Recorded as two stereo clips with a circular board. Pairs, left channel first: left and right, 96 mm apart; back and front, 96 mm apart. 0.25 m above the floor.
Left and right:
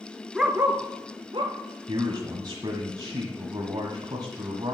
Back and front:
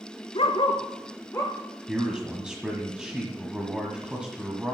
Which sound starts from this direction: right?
A man speaking, at 1.9 s.